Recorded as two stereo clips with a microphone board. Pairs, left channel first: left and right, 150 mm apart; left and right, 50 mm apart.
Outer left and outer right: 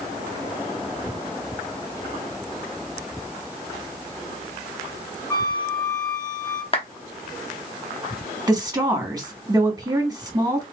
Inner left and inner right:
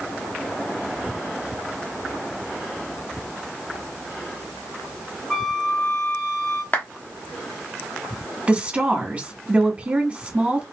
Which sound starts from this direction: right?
A woman speaking, at 8.5 s.